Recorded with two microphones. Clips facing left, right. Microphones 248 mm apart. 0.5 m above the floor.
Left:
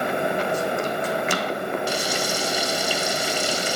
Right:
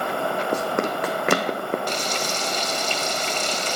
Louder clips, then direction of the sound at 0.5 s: Right 1 dB; 65° right (ahead or behind).